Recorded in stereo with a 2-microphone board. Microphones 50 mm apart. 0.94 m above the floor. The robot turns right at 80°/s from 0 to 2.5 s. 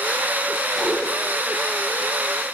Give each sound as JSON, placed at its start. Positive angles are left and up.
{"t": 0.8, "sound": "a whoosh", "side_deg": 20, "distance_m": 5.5}